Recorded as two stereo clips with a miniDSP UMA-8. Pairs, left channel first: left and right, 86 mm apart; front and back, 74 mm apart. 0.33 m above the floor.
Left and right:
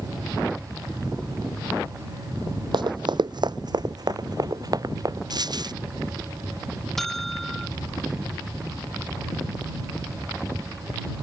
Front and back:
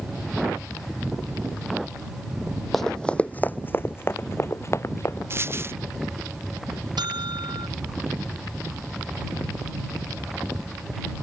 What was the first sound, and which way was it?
Running footsteps, 85° right.